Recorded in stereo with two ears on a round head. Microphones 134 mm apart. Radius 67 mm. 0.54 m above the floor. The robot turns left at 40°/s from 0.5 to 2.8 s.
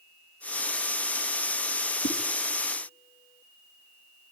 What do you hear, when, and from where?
2.0 s a whoosh: 70° left (ahead or behind), 2.5 m; by 2.2 s 75° left (ahead or behind), 2.5 m